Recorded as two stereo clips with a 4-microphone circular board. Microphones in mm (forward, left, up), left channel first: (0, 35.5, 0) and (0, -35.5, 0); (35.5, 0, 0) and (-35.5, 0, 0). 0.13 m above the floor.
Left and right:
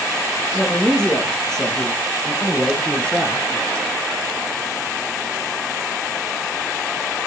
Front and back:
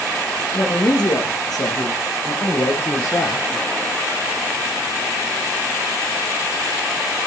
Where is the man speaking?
5° left, 4 m; by 3.5 s 20° left, 2.5 m.